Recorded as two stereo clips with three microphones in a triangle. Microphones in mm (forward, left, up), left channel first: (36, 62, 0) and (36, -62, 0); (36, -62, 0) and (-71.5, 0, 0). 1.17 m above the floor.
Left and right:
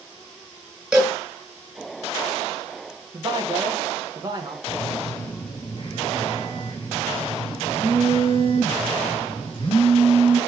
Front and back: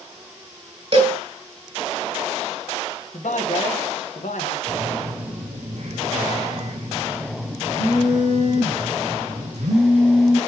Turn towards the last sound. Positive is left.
turn(degrees=130)